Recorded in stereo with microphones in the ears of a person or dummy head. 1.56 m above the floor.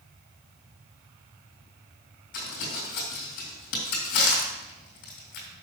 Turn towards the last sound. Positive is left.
turn(degrees=55)  # may be behind; listen again after turning